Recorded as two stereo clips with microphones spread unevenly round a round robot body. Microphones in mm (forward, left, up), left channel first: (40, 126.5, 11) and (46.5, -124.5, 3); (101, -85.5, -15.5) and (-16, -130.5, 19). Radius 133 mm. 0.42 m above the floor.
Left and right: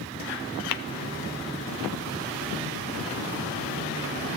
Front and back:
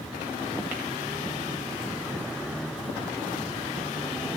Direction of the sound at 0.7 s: 115° left.